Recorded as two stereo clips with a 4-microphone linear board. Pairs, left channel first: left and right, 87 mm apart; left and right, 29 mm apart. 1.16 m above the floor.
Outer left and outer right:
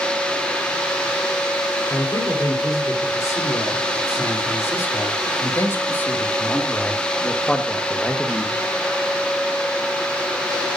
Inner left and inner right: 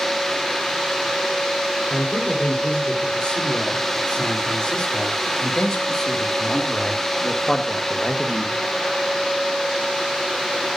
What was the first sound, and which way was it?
A man speaking, 40° left (ahead or behind).